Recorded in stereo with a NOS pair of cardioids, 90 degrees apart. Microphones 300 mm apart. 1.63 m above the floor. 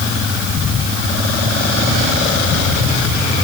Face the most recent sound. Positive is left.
No sound to turn to.